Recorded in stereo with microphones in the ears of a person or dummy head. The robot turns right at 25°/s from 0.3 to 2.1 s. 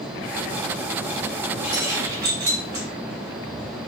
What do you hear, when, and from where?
1.6 s keys jangling: 10° right (ahead or behind), 1.0 m; by 2.9 s 20° right (ahead or behind), 1.0 m